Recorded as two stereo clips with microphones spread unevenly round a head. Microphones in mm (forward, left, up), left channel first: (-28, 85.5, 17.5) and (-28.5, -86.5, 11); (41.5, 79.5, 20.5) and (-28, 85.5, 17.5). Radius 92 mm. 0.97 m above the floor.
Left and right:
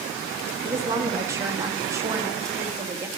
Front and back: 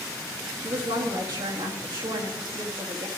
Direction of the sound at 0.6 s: 165° right.